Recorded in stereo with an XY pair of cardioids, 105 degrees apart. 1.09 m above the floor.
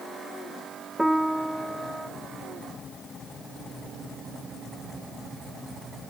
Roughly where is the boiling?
No boiling in this recording.